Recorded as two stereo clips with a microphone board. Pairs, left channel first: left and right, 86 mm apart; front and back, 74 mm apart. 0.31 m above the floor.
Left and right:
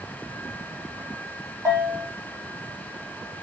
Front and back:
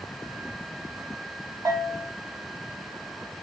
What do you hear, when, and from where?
1.6 s a bell: 140° right, 1.4 m